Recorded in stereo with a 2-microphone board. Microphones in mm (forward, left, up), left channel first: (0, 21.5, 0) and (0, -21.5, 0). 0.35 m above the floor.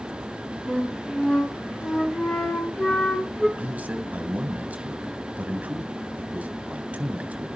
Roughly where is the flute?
Centre.